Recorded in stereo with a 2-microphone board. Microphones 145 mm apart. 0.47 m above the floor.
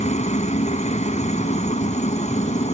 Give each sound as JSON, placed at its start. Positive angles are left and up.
{"t": 0.0, "sound": "a helicopter", "side_deg": 55}